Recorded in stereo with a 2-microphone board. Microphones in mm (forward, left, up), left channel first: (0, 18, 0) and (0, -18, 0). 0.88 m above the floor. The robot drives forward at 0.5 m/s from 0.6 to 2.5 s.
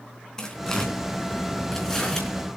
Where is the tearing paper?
15° left (ahead or behind), 3.5 m; by 2.3 s 10° left (ahead or behind), 4 m.